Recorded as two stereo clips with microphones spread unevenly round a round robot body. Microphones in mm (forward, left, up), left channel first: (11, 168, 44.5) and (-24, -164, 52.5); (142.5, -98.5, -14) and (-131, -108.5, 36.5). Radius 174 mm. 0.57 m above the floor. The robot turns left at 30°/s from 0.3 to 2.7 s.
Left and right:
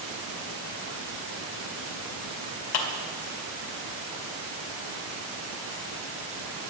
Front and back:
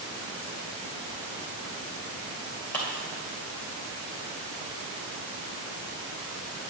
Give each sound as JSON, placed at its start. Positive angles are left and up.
{"t": 2.7, "sound": "a clap", "azimuth_deg": 85, "distance_m": 1.8}